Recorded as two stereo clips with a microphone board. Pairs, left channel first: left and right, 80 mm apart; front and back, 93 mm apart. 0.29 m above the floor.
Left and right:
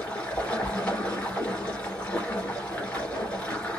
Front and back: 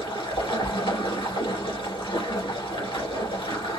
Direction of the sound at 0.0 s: 15° left.